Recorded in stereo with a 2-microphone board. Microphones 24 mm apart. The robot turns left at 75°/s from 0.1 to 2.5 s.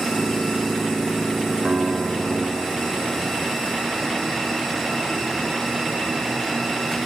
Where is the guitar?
65° right, 1.7 m; by 3.5 s 130° right, 1.7 m.